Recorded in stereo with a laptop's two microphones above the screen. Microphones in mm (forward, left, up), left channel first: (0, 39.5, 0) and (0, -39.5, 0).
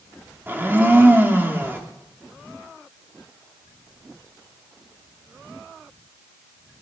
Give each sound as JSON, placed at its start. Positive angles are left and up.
{"t": 0.5, "sound": "a blender", "side_deg": -25, "distance_m": 0.8}